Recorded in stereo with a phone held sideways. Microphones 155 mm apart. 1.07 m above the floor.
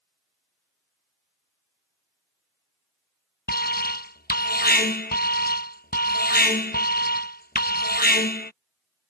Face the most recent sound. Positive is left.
turn(degrees=75)  # may be behind; listen again after turning